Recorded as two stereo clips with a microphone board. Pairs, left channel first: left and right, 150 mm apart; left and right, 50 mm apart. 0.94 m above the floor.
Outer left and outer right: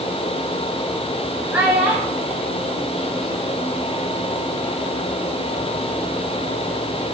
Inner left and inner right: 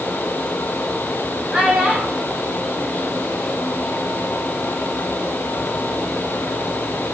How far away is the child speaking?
About 5.5 m.